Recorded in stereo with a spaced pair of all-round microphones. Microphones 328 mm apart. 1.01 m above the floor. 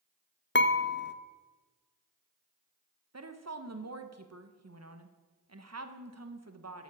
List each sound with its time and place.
0.6 s dishes clattering: 35° left (ahead or behind), 0.6 m
3.1 s a woman speaking: 50° right (ahead or behind), 1.1 m